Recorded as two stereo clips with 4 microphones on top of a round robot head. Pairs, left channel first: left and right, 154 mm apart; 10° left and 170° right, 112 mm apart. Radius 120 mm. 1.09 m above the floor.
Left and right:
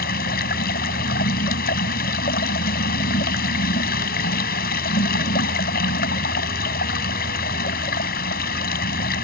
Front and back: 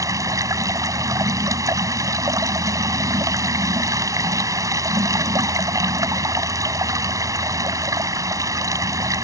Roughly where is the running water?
Behind left.